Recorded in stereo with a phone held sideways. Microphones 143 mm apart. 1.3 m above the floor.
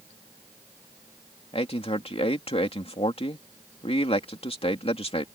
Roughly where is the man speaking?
Left.